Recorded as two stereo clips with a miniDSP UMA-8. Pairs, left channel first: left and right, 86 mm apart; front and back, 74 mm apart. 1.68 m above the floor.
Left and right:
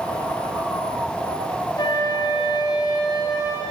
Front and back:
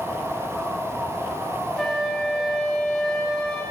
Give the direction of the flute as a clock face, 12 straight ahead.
9 o'clock.